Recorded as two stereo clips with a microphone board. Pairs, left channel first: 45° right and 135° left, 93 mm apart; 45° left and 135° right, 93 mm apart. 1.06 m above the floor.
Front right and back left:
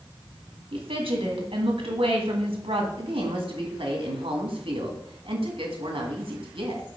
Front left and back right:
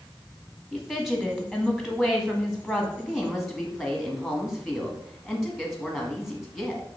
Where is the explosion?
I don't hear an explosion.